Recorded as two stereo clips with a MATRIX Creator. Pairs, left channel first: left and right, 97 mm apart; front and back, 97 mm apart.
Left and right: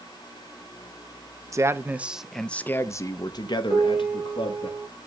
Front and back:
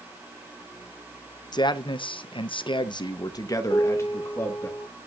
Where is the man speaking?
35° right, 0.9 m; by 4.7 s 70° left, 1.6 m.